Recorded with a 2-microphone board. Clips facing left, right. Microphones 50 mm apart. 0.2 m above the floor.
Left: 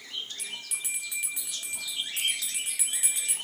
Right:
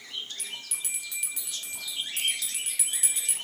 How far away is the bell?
About 0.9 m.